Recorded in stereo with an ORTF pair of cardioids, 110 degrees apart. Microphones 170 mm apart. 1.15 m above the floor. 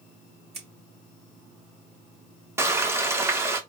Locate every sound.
0.5 s scissors: 40° right, 2 m
2.6 s frying: 15° right, 0.9 m